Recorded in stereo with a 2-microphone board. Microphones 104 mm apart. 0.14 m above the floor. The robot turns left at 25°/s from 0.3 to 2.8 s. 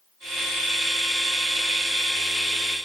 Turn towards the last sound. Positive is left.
No sound to turn to.